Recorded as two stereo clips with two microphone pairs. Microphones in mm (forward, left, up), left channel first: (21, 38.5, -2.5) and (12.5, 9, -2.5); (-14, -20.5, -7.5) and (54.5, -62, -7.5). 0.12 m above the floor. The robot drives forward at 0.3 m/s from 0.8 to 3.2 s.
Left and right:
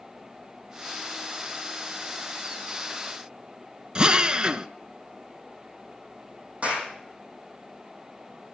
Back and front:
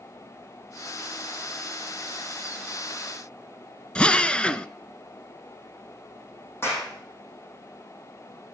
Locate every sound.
4.0 s a drill: 140° right, 0.5 m
6.6 s a clap: 155° right, 5 m